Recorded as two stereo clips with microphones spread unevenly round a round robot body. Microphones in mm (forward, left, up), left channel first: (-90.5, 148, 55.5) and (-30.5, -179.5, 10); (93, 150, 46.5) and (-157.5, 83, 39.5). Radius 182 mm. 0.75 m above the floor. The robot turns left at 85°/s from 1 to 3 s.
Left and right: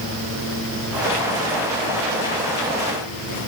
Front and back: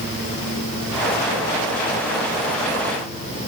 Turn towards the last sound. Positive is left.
No sound to turn to.